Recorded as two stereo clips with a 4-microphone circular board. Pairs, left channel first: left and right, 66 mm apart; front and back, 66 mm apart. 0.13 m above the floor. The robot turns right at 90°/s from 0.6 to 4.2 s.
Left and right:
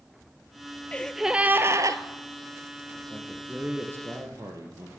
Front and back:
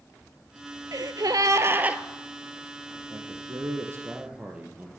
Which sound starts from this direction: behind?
A gasp, at 0.9 s.